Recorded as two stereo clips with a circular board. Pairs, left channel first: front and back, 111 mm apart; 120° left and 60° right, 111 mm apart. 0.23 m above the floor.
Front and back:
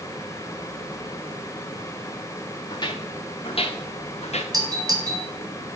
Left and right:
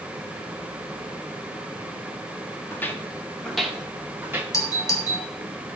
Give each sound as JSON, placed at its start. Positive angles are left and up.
{"t": 2.7, "sound": "footsteps", "azimuth_deg": 50, "distance_m": 2.0}
{"t": 4.5, "sound": "a doorbell", "azimuth_deg": 160, "distance_m": 2.0}